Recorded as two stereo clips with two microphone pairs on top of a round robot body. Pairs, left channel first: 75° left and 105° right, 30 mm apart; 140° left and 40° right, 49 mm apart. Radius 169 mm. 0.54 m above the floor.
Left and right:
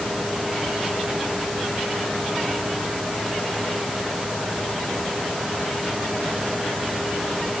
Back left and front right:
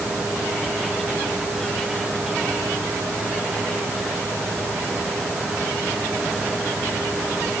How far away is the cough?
I don't hear a cough.